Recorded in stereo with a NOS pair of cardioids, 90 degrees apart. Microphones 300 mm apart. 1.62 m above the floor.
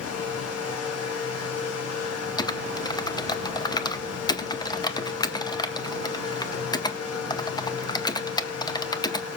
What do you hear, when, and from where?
0.0 s a fan: 55° left, 1.6 m
2.4 s typing on a keyboard: 15° left, 0.7 m